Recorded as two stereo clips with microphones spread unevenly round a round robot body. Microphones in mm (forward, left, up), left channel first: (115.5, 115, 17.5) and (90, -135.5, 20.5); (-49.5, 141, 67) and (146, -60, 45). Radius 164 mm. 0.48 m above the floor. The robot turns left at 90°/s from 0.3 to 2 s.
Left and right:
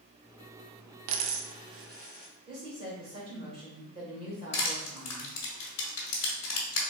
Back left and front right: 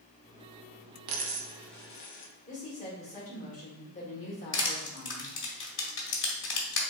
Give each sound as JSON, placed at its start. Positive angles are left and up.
{"t": 1.1, "sound": "a dropped coin", "azimuth_deg": -80, "distance_m": 0.6}
{"t": 2.5, "sound": "a woman speaking", "azimuth_deg": -160, "distance_m": 1.4}
{"t": 4.5, "sound": "crushing", "azimuth_deg": 90, "distance_m": 1.3}